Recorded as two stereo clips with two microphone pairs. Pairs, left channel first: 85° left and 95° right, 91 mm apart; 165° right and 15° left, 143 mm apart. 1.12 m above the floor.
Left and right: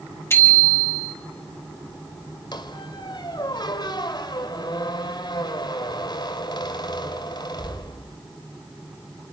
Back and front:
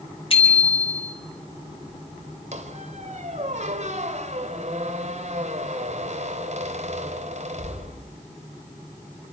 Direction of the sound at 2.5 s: 50° left.